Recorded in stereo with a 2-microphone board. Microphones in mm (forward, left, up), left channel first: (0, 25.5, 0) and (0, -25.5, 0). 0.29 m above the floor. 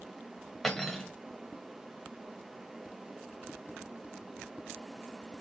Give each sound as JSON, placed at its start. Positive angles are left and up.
{"t": 0.6, "sound": "cutlery clinking", "side_deg": 5, "distance_m": 0.7}